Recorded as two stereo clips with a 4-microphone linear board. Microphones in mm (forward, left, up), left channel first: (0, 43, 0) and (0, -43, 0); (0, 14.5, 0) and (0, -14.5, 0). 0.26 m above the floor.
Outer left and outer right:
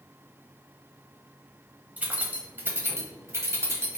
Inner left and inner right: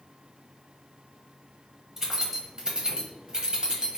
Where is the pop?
I don't hear a pop.